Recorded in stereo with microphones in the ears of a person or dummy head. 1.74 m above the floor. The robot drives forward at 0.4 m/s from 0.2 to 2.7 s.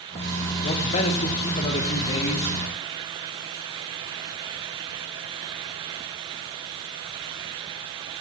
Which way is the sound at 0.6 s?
35° left (ahead or behind).